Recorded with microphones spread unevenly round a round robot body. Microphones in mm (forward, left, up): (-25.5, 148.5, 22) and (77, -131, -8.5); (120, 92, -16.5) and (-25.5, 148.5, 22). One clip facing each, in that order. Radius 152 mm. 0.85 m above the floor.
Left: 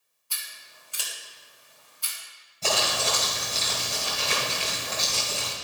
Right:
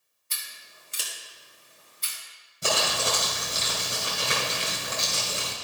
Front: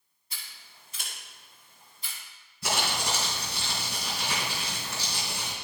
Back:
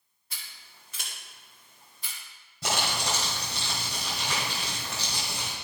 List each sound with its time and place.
0.3 s scissors: 135° right, 1.4 m
2.6 s crumpling: 145° right, 2.5 m